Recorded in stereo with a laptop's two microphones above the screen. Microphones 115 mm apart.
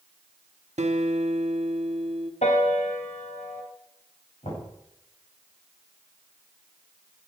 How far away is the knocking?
About 5.5 m.